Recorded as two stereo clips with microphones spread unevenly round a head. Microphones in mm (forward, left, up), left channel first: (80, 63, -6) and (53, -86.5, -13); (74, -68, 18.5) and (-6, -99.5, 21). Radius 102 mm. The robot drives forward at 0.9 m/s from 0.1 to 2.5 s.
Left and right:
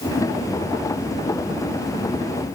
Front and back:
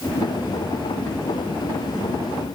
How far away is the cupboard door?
I don't hear a cupboard door.